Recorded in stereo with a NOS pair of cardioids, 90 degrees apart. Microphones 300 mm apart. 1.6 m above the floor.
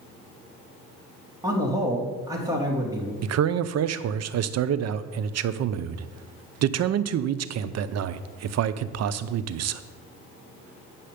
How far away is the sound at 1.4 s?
About 3 m.